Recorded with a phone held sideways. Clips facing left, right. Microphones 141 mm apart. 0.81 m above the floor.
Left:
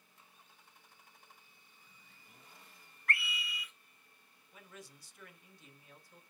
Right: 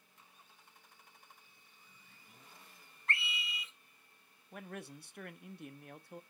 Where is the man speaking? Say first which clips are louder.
Right 8 dB; 60° right (ahead or behind), 0.8 m.